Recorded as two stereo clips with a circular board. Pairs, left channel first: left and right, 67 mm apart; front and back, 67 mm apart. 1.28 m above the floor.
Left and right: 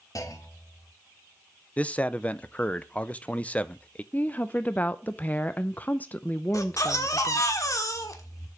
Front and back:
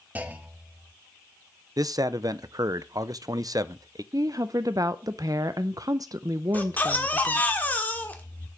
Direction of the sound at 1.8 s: 160° left.